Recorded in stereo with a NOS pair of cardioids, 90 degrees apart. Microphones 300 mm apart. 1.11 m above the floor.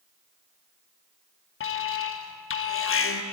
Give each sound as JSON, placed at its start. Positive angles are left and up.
{"t": 1.6, "sound": "an alarm", "azimuth_deg": 45, "distance_m": 1.1}